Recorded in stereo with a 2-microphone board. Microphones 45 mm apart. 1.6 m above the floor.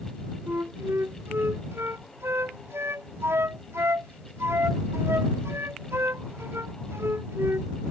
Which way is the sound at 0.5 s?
85° right.